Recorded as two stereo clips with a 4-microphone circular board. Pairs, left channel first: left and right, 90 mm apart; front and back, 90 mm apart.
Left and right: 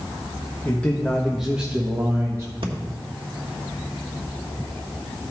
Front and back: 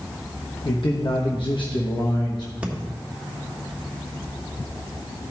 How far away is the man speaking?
About 0.9 m.